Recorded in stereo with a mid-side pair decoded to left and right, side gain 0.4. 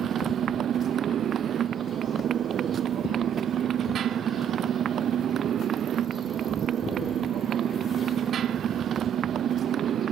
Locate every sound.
0.0 s a motorcycle: 65° right